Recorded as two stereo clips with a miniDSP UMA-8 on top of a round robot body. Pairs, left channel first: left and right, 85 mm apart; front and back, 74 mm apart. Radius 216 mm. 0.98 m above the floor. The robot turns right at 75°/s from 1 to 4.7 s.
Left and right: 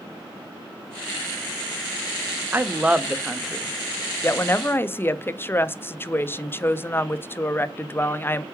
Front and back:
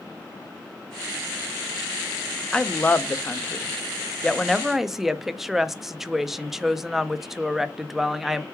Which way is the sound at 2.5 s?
60° right.